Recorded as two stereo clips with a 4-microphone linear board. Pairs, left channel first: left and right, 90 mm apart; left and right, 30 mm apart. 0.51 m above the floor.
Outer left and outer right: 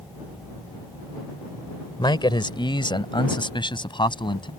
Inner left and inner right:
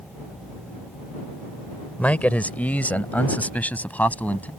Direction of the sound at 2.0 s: 60° left (ahead or behind).